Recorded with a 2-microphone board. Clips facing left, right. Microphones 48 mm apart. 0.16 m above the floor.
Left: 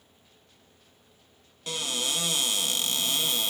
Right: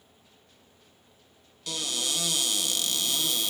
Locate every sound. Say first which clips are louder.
1.7 s a cupboard door: left 1 dB; 30° left (ahead or behind), 0.8 m